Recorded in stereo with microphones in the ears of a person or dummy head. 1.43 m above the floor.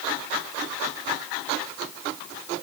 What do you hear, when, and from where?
Only background noise.